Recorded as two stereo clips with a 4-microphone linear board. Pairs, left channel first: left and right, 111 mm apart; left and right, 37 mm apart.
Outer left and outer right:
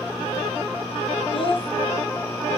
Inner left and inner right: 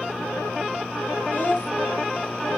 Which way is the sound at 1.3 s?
55° left (ahead or behind).